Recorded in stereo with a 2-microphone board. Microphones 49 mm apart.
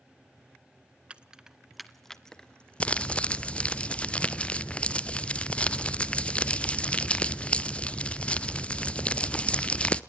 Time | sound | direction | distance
1.1 | keys jangling | 25° right (ahead or behind) | 0.9 m
2.8 | crumpling | 25° left (ahead or behind) | 0.6 m